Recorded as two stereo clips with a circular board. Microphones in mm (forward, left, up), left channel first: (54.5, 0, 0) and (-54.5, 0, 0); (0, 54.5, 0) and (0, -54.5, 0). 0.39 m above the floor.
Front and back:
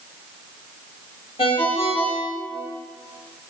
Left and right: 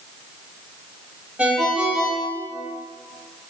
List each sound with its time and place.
1.4 s a ringtone: 15° right, 0.7 m